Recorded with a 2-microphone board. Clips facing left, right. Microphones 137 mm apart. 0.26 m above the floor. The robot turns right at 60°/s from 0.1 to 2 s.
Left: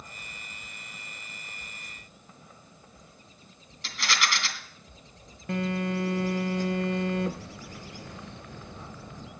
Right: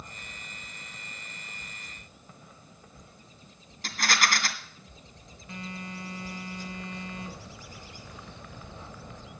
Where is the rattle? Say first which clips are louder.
Right 2 dB; 45° right (ahead or behind), 2 m.